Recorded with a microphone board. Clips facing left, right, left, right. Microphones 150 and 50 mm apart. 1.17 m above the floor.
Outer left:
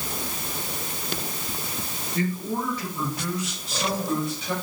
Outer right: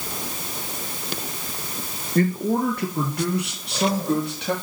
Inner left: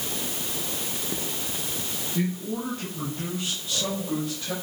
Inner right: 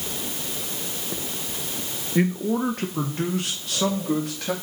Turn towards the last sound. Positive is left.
turn(degrees=-70)  # may be behind; listen again after turning